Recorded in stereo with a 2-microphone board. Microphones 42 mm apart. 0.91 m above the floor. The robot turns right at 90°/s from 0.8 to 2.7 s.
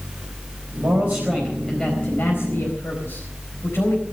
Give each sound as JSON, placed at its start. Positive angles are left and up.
{"t": 0.8, "sound": "a man speaking", "azimuth_deg": -75, "distance_m": 4.0}